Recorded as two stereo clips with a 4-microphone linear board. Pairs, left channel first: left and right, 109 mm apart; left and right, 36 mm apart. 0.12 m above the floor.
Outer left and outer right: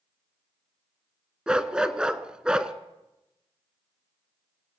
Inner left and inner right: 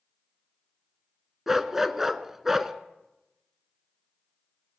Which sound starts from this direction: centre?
A dog barking, at 1.5 s.